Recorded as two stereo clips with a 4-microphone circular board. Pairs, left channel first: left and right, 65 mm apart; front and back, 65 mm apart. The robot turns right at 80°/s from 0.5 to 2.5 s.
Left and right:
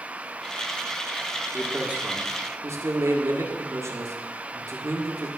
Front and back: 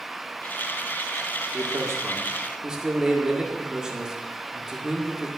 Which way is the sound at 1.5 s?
Straight behind.